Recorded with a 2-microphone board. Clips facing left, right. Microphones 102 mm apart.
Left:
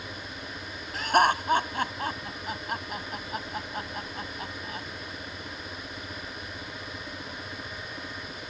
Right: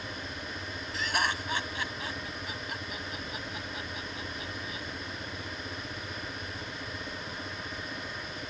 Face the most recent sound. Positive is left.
turn(degrees=50)  # may be behind; listen again after turning